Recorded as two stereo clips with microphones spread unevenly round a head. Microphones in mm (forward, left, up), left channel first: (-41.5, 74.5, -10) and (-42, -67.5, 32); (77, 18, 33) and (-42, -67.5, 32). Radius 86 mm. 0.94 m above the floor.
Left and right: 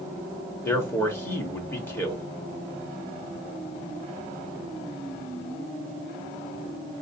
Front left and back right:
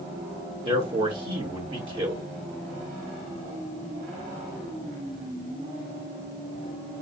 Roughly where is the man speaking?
Behind left.